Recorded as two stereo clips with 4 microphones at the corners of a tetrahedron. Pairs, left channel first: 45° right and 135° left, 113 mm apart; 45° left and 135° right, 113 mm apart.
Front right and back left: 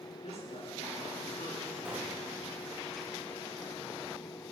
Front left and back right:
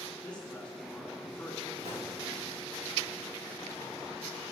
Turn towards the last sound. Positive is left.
turn(degrees=-150)